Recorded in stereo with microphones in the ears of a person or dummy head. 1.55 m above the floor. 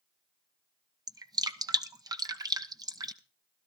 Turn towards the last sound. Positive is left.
turn(degrees=-20)  # may be behind; listen again after turning